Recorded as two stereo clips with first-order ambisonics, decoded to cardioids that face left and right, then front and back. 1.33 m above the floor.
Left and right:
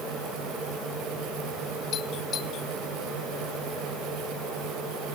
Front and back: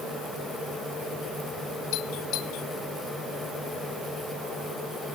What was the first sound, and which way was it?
A doorbell, 35° left.